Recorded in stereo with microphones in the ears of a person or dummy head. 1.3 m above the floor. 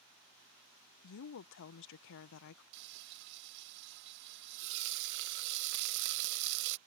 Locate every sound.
1.0 s a woman speaking: 65° left (ahead or behind)
2.7 s frying: 60° right (ahead or behind)